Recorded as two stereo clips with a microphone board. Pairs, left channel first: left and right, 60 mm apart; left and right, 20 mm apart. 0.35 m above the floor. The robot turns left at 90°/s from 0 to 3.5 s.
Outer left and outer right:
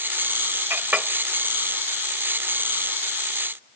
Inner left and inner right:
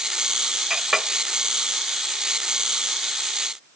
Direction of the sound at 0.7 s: 45° right (ahead or behind).